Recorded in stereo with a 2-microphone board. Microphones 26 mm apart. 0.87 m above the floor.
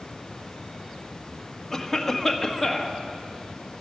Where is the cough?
10° left (ahead or behind), 1.4 m.